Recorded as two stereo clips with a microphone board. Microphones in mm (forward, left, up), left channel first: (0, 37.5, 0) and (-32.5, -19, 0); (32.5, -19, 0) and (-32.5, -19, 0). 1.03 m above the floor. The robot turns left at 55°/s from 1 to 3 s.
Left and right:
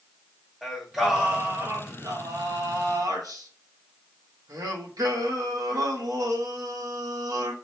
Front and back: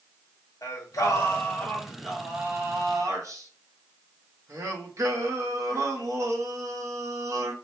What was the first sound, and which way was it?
Singing, 30° right.